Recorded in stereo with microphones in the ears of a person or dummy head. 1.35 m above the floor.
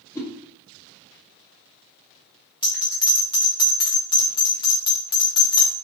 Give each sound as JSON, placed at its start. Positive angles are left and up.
{"t": 0.1, "sound": "a whoosh", "side_deg": 15, "distance_m": 1.0}
{"t": 2.6, "sound": "a bell", "side_deg": 30, "distance_m": 1.3}